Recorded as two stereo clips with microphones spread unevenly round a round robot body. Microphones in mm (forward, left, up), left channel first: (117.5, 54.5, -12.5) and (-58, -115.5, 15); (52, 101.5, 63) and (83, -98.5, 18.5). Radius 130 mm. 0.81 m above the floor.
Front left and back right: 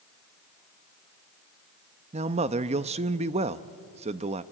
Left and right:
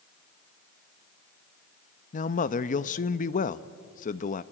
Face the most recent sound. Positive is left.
turn(degrees=155)